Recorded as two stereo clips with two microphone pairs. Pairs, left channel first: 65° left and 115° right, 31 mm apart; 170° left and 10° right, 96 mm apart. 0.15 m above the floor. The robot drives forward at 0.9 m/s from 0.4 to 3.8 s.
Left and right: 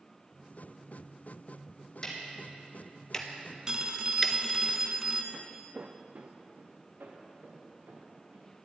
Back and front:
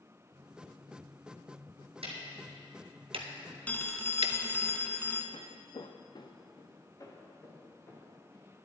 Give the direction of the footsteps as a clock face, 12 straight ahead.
7 o'clock.